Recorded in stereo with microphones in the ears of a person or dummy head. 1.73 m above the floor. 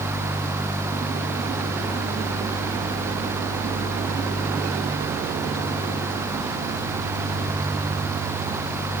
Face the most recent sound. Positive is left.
No sound to turn to.